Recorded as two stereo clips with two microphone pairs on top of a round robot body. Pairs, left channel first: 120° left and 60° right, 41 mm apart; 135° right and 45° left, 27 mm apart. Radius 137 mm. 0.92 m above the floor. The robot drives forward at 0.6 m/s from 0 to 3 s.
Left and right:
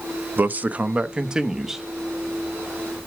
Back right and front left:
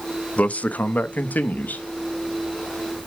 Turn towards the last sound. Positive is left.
turn(degrees=-155)